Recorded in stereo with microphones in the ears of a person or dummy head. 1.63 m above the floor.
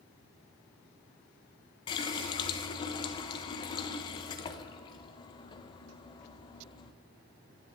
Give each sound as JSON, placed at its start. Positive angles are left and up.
{"t": 1.9, "sound": "a running tap", "side_deg": 25, "distance_m": 0.8}